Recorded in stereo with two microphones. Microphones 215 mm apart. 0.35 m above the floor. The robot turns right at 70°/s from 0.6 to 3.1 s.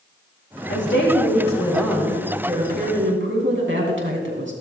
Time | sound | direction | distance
0.7 | a woman speaking | 90° left | 3.5 m